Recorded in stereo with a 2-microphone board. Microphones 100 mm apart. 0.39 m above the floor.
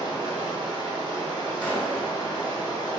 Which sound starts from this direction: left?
Running water, at 0.0 s.